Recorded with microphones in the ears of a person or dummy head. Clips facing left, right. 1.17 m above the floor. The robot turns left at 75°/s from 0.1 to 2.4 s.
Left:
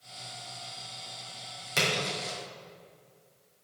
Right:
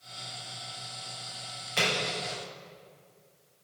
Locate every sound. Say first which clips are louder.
1.8 s a splash: even; 50° left (ahead or behind), 2.5 m; by 2.3 s 90° left, 2.5 m